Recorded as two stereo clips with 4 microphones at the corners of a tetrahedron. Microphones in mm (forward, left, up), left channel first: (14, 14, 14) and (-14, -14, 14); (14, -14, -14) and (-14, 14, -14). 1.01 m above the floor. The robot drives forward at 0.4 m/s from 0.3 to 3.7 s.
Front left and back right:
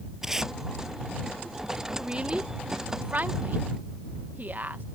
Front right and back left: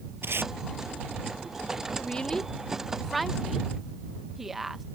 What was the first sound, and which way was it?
Tape being pulled, 145° left.